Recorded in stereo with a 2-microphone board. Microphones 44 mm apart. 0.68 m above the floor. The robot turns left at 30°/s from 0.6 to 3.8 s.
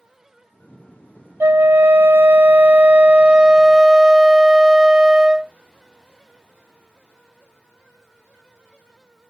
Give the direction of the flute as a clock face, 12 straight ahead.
3 o'clock.